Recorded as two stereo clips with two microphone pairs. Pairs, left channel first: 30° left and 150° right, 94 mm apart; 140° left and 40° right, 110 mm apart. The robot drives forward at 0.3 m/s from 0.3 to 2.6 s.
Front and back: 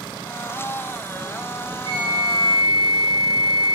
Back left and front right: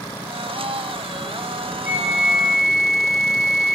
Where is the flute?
115° right, 4 m; by 3.8 s 120° right, 4 m.